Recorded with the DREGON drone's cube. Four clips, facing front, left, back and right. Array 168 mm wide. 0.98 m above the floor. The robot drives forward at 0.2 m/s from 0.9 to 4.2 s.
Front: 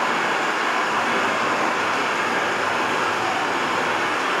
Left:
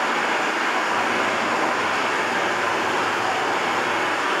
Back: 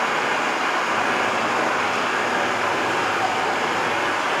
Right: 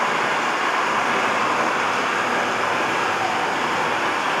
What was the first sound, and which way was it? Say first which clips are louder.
Running water: right 1 dB, even; 95° right.